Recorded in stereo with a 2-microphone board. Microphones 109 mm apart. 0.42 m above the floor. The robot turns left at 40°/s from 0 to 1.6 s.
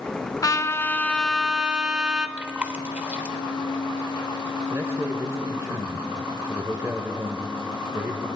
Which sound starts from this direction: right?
A man speaking, at 4.7 s.